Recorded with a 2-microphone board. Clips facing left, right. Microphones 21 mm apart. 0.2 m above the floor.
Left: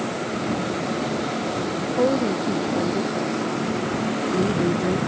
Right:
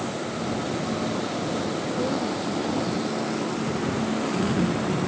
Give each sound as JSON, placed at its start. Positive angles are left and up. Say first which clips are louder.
{"t": 1.9, "sound": "a woman speaking", "louder": "left 9 dB", "side_deg": 65}